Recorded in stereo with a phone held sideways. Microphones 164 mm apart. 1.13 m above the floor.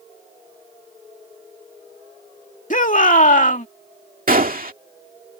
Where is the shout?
55° left (ahead or behind).